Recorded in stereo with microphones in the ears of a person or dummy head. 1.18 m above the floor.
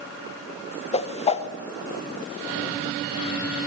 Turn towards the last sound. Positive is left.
turn(degrees=35)  # may be behind; listen again after turning